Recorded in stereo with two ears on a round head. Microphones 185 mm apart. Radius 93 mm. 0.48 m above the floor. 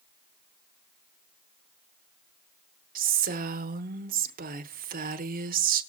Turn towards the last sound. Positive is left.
turn(degrees=-45)  # may be behind; listen again after turning